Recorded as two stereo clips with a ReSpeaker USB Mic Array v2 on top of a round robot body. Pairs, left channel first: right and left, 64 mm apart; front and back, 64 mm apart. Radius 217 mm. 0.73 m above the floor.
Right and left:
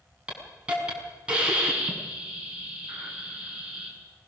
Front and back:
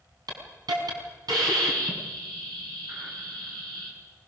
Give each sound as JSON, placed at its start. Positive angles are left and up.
{"t": 0.3, "sound": "a hiss", "azimuth_deg": 160, "distance_m": 5.5}